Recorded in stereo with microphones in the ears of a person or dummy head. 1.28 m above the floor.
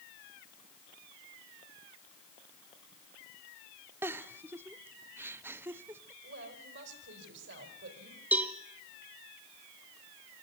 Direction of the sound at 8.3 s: 10° right (ahead or behind).